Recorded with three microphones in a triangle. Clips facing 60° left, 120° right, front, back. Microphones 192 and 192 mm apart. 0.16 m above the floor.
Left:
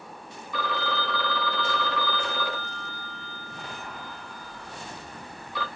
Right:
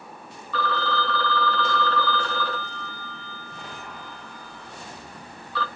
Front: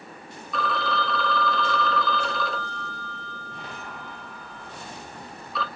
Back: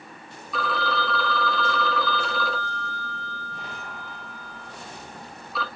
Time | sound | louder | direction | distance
0.5 | a phone ringing | right 3 dB, even | 100° left | 0.6 m